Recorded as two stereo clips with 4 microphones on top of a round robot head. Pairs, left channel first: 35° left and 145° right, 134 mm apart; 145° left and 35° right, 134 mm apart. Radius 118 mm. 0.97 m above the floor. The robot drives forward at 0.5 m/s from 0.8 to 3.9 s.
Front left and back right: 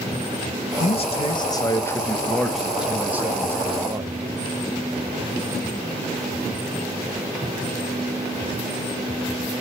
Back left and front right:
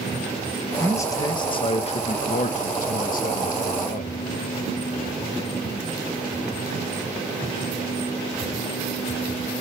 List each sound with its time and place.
0.8 s a man speaking: 70° left, 1.0 m; by 4.2 s 145° left, 1.6 m